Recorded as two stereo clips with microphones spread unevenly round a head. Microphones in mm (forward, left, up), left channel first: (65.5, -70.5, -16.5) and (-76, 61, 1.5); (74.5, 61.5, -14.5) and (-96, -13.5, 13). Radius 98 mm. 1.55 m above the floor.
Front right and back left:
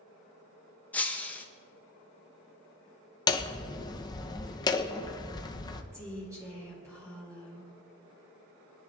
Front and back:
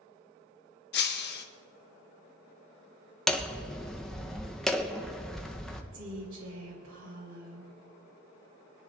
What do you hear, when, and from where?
0.9 s breaking glass: 40° left, 0.9 m
3.3 s hammering: 85° right, 0.7 m
5.9 s a woman speaking: 150° right, 3 m